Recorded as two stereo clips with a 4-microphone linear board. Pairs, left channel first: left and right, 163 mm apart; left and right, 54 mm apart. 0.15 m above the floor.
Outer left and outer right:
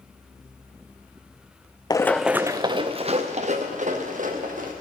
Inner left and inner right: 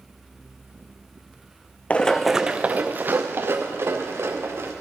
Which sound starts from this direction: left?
Running footsteps, at 1.9 s.